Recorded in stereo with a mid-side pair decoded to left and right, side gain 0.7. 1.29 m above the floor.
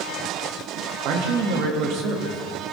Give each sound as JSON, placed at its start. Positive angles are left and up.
{"t": 1.1, "sound": "a man speaking", "azimuth_deg": -60, "distance_m": 1.7}